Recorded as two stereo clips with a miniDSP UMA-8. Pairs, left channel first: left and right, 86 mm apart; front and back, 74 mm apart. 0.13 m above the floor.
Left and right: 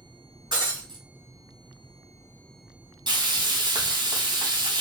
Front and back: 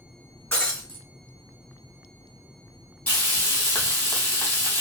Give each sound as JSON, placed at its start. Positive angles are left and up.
{"t": 0.5, "sound": "breaking glass", "azimuth_deg": -60, "distance_m": 2.0}
{"t": 3.1, "sound": "frying", "azimuth_deg": -60, "distance_m": 1.8}